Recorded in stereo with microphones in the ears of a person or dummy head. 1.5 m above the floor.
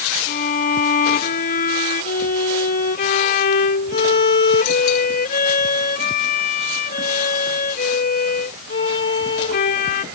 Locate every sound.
0.3 s a violin: 45° left (ahead or behind)